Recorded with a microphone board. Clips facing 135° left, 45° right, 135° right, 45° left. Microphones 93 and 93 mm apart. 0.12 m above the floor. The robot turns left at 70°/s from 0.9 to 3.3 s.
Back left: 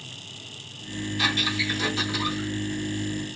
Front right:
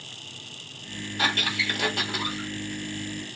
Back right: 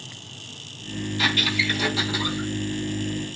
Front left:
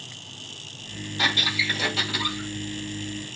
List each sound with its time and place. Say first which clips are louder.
1.2 s a squeak: front right 1 dB, back right 1 dB; 5° right, 1.6 m; by 2.5 s 95° right, 1.6 m